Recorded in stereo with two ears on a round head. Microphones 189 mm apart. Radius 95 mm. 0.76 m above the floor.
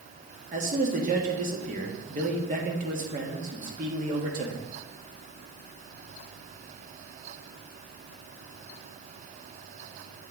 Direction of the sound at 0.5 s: 35° right (ahead or behind).